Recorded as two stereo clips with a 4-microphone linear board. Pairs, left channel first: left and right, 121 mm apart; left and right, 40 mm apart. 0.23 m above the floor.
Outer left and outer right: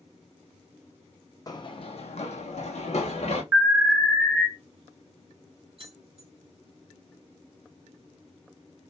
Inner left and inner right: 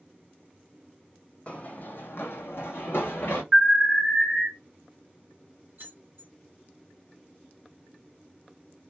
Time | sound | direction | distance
1.5 | running footsteps | 30° left (ahead or behind) | 0.5 m
3.5 | an alarm | 20° right (ahead or behind) | 1.2 m
5.8 | keys jangling | 50° right (ahead or behind) | 1.5 m